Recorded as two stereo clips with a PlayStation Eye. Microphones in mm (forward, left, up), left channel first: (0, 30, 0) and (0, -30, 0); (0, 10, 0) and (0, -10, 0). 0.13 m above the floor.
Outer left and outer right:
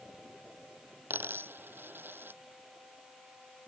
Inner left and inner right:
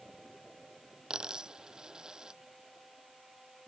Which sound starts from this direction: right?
A dropped coin, at 1.1 s.